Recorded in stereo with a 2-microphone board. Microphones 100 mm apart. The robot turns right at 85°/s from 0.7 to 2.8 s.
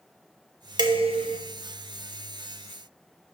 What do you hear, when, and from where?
0.8 s dishes clattering: 135° right, 0.7 m; by 1.4 s 85° right, 0.7 m